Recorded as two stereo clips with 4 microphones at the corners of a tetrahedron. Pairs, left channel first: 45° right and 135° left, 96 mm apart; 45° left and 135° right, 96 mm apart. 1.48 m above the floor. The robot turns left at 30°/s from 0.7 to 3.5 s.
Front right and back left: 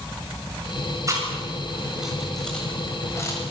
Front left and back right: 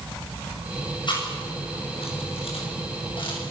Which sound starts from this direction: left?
Chewing, at 1.1 s.